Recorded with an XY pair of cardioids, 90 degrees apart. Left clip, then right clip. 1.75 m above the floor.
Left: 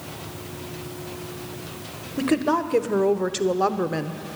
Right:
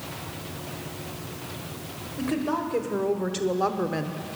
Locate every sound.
2.2 s a woman speaking: 65° left, 1.4 m; by 4.2 s 5° left, 0.9 m